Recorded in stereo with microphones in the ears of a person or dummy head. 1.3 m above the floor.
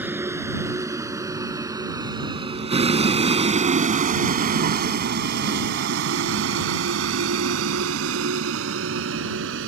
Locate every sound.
0.0 s a vehicle: 10° right (ahead or behind); by 9.7 s 75° right (ahead or behind)